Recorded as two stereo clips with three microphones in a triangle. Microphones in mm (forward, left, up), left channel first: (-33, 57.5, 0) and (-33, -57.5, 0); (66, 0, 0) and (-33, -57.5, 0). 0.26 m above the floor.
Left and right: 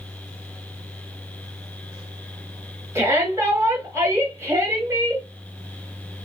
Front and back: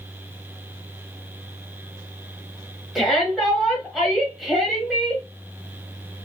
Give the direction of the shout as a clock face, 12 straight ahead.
2 o'clock.